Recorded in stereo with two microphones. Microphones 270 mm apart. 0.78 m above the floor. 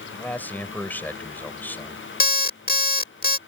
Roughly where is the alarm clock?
Left.